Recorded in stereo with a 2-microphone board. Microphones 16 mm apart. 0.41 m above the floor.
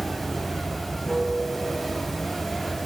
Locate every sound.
0.0 s running water: 5° left (ahead or behind), 1.8 m